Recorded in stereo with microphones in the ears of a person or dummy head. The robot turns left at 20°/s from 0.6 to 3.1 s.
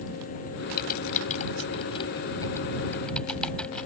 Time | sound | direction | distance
0.8 | typing on a keyboard | 50° left (ahead or behind) | ?